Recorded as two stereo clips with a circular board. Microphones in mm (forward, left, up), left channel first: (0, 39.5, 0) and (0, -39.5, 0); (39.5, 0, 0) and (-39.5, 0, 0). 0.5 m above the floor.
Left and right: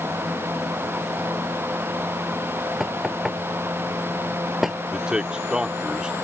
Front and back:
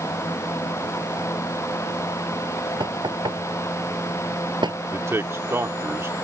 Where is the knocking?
175° right.